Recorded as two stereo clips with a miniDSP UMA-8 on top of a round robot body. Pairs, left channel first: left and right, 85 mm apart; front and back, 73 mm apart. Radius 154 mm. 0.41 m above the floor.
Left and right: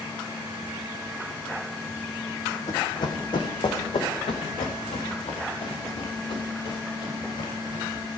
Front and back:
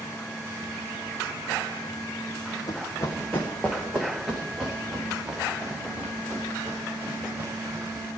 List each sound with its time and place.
2.7 s running footsteps: 45° left, 1.9 m; by 8.1 s 115° left, 6.5 m